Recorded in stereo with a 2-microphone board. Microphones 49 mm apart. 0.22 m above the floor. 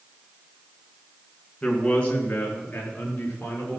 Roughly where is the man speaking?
Centre.